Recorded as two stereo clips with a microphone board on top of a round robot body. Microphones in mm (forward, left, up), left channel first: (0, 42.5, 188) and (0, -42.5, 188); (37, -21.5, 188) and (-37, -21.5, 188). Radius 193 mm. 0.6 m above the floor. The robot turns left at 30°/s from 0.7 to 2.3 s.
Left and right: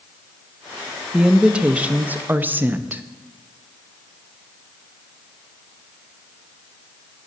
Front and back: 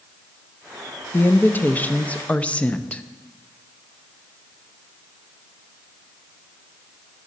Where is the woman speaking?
15° right, 0.7 m; by 3.0 s 50° right, 0.7 m.